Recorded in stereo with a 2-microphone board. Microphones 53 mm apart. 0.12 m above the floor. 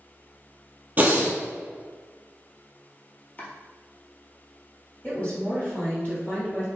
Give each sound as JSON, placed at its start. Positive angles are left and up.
{"t": 1.0, "sound": "breathing", "side_deg": -35, "distance_m": 0.5}
{"t": 3.4, "sound": "chopping", "side_deg": 35, "distance_m": 0.7}
{"t": 5.0, "sound": "a woman speaking", "side_deg": 35, "distance_m": 2.0}